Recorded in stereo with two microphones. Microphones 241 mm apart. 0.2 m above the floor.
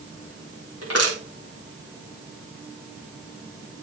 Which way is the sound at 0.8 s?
80° left.